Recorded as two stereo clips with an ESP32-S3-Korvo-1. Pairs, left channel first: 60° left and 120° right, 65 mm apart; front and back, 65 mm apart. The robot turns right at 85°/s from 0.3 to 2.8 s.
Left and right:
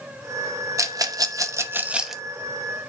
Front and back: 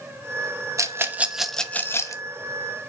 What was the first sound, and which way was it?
A rattle, 150° right.